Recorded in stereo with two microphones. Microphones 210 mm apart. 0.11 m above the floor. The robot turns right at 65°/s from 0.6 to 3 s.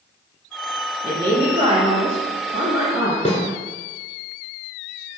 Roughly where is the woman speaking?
Behind right.